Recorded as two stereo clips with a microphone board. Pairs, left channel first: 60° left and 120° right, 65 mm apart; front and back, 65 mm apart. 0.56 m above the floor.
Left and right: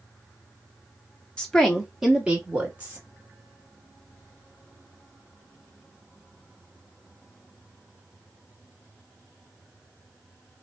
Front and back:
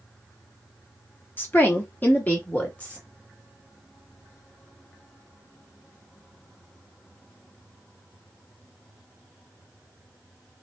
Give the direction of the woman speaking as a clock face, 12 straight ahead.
12 o'clock.